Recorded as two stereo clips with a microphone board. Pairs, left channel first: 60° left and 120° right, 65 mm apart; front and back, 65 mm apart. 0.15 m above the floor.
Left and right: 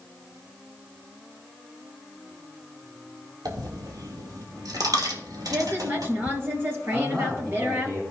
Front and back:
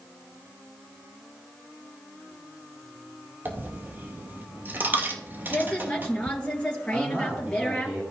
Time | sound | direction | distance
3.5 | a dropped coin | 120° right | 1.5 m
5.5 | a woman speaking | 70° right | 2.5 m
6.9 | a man speaking | 110° right | 5.5 m